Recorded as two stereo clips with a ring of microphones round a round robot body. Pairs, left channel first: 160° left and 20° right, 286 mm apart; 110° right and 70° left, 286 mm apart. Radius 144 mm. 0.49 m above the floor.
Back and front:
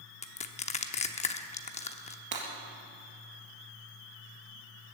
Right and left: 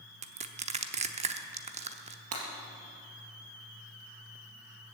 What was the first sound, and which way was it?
Crushing, 110° left.